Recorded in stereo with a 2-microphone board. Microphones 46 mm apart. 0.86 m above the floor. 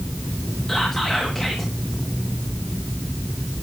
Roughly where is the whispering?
Centre.